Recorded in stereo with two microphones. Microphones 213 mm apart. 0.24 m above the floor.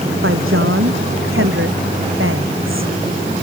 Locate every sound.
0.2 s a woman speaking: 75° right (ahead or behind); by 2.9 s 70° right (ahead or behind)